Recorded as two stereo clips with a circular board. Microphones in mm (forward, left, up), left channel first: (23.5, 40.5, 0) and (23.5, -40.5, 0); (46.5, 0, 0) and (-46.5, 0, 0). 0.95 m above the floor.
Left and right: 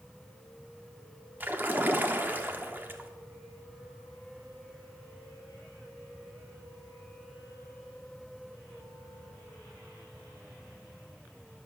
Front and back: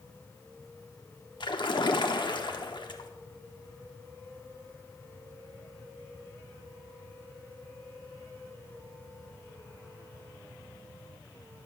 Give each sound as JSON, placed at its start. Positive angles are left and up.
{"t": 1.4, "sound": "a splash", "azimuth_deg": -25, "distance_m": 1.0}